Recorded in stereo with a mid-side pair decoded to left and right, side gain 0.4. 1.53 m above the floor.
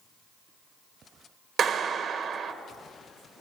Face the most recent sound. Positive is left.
turn(degrees=-65)